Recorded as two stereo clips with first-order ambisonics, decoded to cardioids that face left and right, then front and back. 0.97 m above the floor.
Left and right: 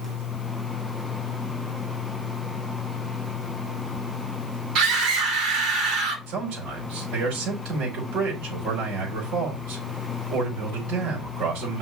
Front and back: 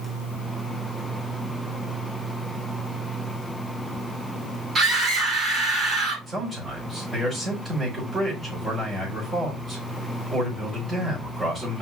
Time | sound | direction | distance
4.8 | a scream | 115° right | 4 m
6.3 | a man speaking | 105° right | 5 m